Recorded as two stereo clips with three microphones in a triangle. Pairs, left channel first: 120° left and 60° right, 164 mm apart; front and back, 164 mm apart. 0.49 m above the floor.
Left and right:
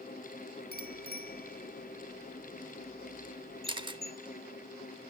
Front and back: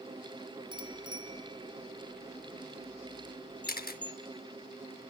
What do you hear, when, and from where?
0.7 s a bicycle bell: 120° left, 3 m
3.7 s a camera shutter: 5° right, 0.6 m